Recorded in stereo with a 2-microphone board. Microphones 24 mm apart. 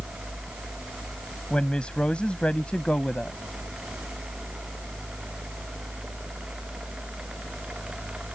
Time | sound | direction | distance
1.5 | a woman speaking | 45° left (ahead or behind) | ?